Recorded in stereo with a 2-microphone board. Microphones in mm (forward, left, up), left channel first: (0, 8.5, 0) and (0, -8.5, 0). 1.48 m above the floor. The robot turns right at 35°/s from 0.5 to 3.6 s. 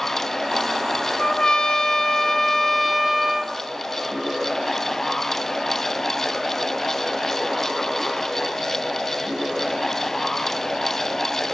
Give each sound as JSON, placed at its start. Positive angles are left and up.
{"t": 1.2, "sound": "a trumpet", "azimuth_deg": 115, "distance_m": 1.0}